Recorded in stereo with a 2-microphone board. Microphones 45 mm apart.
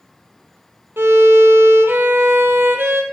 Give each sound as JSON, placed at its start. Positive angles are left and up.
{"t": 1.0, "sound": "a violin", "side_deg": -65, "distance_m": 0.5}